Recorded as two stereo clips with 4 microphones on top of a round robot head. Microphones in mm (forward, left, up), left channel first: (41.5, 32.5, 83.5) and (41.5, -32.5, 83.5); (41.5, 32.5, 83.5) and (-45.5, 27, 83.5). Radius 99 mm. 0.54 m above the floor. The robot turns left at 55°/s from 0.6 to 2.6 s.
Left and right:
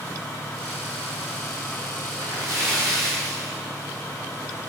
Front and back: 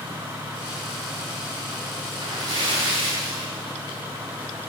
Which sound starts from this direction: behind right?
A splash, at 2.1 s.